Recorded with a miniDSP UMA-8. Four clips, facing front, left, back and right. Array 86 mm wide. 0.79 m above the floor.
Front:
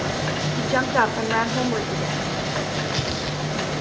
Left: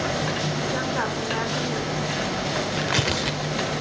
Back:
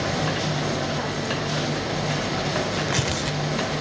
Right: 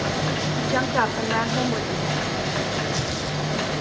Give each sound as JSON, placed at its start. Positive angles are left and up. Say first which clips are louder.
{"t": 0.6, "sound": "a woman speaking", "louder": "right 7 dB, front 6 dB", "azimuth_deg": -20, "distance_m": 2.5}
{"t": 2.8, "sound": "tearing paper", "louder": "left 2 dB, back 1 dB", "azimuth_deg": 105, "distance_m": 1.7}